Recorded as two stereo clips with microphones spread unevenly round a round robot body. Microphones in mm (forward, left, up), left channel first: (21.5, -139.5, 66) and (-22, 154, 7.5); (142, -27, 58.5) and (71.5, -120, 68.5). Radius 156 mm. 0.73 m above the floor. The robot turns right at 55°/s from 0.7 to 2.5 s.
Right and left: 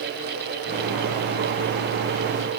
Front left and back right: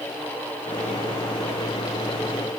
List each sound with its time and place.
Only background noise.